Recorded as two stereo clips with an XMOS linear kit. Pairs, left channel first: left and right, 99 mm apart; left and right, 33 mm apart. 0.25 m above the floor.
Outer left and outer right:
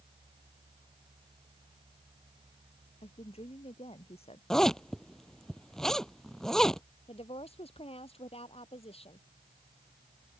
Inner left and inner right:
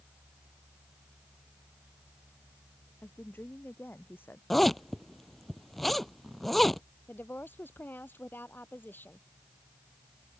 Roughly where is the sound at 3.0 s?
Left.